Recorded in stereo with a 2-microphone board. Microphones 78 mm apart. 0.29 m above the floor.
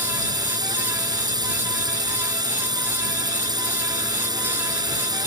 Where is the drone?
65° right (ahead or behind).